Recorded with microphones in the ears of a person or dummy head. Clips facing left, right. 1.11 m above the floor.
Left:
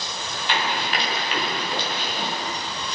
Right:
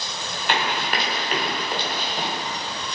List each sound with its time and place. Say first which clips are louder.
0.5 s running footsteps: right 1 dB; 45° right (ahead or behind), 8.5 m; by 2.3 s 35° right (ahead or behind), 9 m